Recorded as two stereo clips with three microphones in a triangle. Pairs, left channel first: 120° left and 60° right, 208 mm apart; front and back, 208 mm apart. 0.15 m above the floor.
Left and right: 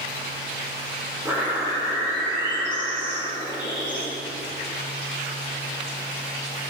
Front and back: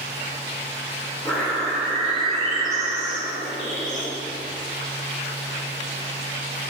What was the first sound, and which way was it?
A bird, 5° left.